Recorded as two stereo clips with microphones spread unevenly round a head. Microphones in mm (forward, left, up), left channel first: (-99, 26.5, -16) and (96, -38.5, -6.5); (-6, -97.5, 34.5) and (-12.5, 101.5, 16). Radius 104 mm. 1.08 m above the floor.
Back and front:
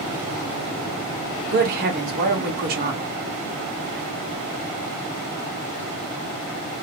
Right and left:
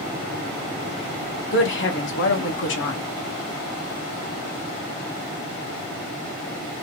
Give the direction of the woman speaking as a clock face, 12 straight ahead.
2 o'clock.